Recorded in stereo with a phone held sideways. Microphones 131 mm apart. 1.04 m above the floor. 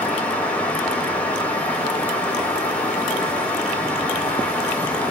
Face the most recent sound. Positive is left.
turn(degrees=10)  # may be behind; listen again after turning